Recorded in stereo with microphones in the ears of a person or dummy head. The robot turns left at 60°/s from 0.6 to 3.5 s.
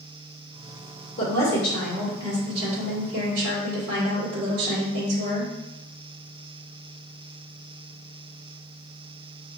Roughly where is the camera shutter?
No camera shutter in this recording.